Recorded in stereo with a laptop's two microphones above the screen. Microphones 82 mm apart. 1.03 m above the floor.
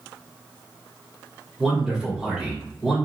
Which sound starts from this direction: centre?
A man speaking, at 1.6 s.